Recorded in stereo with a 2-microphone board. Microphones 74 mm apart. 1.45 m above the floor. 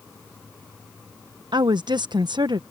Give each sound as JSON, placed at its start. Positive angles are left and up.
{"t": 1.5, "sound": "a woman speaking", "side_deg": -85}